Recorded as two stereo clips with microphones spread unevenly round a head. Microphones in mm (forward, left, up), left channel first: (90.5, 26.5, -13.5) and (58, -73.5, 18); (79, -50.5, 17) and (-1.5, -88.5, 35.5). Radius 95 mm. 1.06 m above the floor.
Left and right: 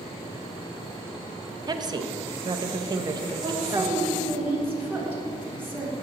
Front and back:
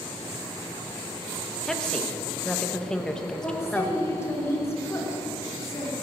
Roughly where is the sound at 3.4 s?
Ahead right.